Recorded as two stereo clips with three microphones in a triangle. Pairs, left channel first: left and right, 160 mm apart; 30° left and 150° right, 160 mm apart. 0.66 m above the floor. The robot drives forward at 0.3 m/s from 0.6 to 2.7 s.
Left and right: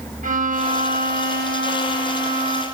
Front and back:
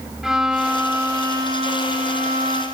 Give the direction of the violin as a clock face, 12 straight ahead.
2 o'clock.